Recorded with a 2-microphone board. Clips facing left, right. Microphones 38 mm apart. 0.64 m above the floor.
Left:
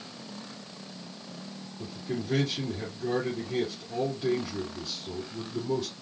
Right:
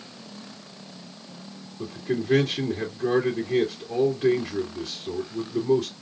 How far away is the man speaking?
About 2.5 m.